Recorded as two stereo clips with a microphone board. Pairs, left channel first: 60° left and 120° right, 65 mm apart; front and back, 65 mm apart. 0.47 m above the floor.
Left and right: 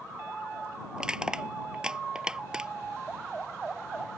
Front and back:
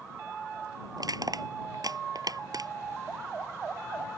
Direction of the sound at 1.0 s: 160° left.